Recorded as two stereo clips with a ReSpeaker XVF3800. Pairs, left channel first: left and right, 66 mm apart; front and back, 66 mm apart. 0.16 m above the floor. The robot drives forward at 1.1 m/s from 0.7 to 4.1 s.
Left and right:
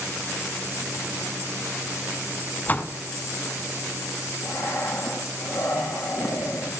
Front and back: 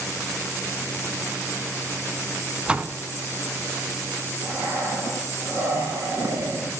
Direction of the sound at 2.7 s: 115° left.